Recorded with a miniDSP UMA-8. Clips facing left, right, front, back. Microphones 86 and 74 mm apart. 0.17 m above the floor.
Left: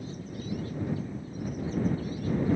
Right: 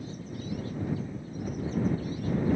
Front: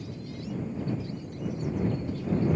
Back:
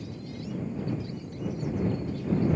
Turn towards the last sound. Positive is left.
No sound to turn to.